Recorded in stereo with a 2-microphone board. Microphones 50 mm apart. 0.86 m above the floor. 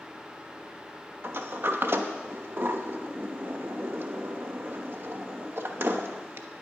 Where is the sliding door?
50° right (ahead or behind), 1.0 m.